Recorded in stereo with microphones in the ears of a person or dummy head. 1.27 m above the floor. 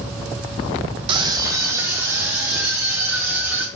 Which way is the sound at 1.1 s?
30° right (ahead or behind).